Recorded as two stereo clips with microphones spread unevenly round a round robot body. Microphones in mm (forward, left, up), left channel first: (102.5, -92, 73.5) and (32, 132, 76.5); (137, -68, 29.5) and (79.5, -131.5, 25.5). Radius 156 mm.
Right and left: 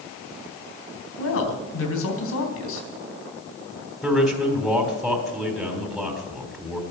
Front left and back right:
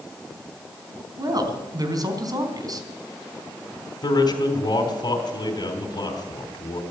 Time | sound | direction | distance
1.2 | a woman speaking | 95° right | 3.5 m
4.0 | a man speaking | 20° left | 3.5 m